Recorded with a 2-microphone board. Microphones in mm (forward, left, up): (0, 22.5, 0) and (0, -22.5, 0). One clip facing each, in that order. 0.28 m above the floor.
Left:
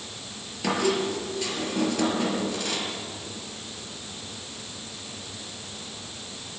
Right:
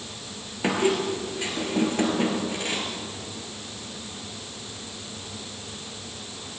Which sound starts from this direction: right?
A squeak, at 0.6 s.